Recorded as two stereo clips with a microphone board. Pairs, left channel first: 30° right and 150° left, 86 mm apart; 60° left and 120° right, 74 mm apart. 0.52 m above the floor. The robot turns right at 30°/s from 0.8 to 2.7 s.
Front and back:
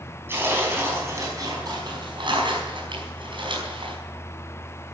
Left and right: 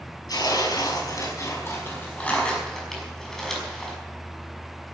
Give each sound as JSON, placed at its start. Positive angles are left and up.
{"t": 0.3, "sound": "tearing paper", "azimuth_deg": 90, "distance_m": 5.0}